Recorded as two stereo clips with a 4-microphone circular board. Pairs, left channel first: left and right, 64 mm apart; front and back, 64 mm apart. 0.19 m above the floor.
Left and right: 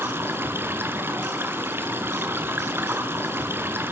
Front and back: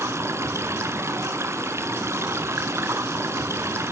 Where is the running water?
140° right, 1.9 m.